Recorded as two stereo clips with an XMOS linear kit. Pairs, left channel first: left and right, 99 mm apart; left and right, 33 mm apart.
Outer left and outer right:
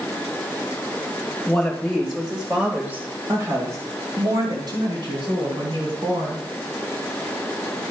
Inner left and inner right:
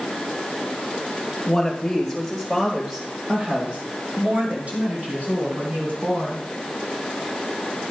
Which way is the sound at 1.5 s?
20° left (ahead or behind).